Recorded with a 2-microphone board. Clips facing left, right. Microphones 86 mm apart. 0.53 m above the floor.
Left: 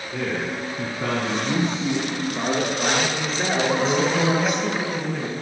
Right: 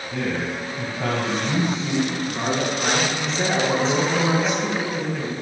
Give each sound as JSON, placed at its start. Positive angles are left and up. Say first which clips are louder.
{"t": 0.1, "sound": "a man speaking", "louder": "right 1 dB", "side_deg": -80, "distance_m": 5.5}
{"t": 2.2, "sound": "a man speaking", "louder": "even", "side_deg": -30, "distance_m": 5.0}
{"t": 3.7, "sound": "a man speaking", "louder": "even", "side_deg": 0, "distance_m": 3.0}